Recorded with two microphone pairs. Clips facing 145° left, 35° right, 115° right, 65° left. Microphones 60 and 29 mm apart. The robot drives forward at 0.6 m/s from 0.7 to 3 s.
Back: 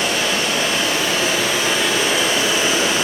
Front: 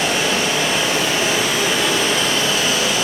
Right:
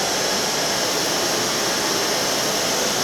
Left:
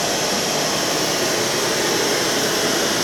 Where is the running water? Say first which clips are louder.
Front 1 dB, left 1 dB; 35° left, 1.6 m; by 3.0 s 95° left, 0.9 m.